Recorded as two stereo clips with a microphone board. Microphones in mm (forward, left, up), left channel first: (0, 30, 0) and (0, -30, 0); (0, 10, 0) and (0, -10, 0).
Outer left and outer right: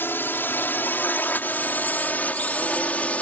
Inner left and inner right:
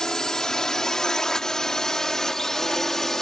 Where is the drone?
35° left (ahead or behind); by 3.2 s 25° left (ahead or behind).